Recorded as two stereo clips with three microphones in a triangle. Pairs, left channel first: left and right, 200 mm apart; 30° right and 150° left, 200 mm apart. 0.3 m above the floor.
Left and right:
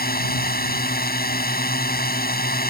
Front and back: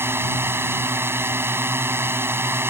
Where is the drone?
75° left.